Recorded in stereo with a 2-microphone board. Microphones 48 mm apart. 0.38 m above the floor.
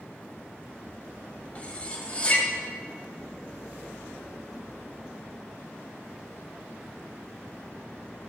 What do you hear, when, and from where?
1.6 s cutlery clinking: 30° left (ahead or behind), 1.3 m